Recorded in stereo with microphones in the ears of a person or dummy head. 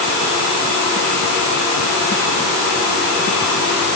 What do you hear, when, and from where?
Only background noise.